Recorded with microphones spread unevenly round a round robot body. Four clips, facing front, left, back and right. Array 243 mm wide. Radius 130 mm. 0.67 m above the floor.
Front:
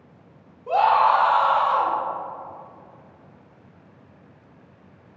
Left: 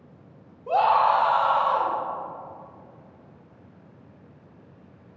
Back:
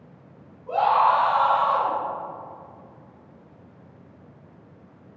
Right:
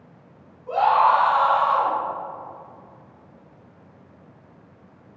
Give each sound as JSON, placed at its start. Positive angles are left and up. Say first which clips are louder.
{"t": 0.7, "sound": "a scream", "louder": "right 2 dB, front 2 dB", "azimuth_deg": 55, "distance_m": 1.8}